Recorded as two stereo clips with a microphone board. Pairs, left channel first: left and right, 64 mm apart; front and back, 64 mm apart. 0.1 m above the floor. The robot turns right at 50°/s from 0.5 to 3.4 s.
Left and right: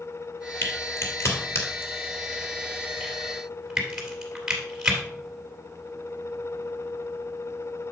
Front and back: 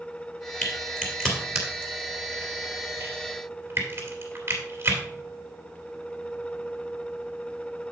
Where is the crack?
50° left, 2.5 m; by 5.0 s 170° right, 2.5 m.